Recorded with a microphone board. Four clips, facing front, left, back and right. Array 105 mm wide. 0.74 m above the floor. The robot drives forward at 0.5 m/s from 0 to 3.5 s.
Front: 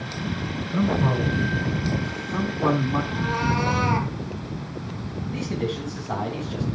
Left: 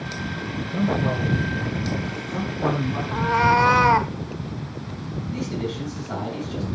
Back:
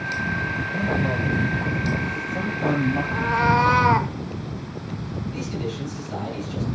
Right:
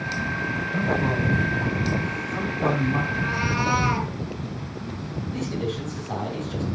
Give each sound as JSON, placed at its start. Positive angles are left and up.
{"t": 0.7, "sound": "a man speaking", "azimuth_deg": -5, "distance_m": 6.5}
{"t": 3.1, "sound": "a cat meowing", "azimuth_deg": 105, "distance_m": 1.0}
{"t": 5.3, "sound": "a man speaking", "azimuth_deg": -15, "distance_m": 4.5}